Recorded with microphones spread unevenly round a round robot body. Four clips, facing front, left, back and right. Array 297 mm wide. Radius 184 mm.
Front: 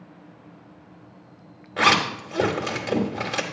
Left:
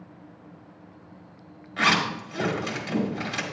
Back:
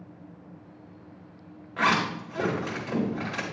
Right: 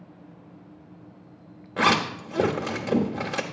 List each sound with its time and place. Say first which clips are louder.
1.8 s a zipper: right 2 dB, front 4 dB; 65° right, 1.0 m